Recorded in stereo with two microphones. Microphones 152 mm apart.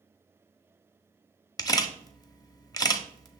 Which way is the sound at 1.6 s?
25° left (ahead or behind).